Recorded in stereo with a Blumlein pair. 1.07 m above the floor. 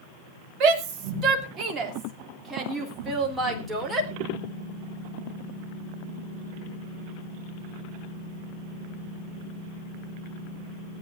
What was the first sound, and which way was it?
A shout, 40° right.